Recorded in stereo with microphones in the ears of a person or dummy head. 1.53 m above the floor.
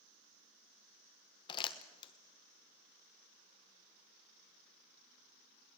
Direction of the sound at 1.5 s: 30° left (ahead or behind).